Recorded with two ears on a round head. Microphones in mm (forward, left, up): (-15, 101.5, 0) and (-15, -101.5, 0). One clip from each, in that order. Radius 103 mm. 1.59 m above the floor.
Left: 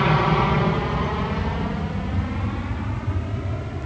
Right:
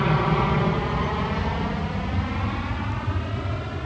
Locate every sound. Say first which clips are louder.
0.0 s an aircraft: left 3 dB; 15° left (ahead or behind); by 3.9 s 40° right (ahead or behind)